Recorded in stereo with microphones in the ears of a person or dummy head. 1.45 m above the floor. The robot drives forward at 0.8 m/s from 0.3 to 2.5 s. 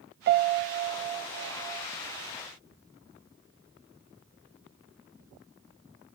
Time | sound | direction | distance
0.3 | a piano | 50° right (ahead or behind) | 0.6 m